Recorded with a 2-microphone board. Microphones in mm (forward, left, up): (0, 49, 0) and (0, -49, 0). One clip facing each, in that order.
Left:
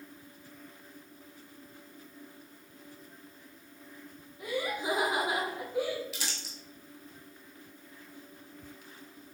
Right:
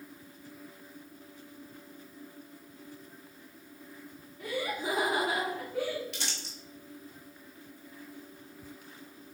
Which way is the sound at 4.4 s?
15° left (ahead or behind).